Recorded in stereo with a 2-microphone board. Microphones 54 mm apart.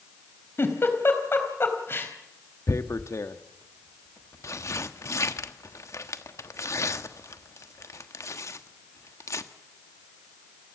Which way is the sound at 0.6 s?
45° left (ahead or behind).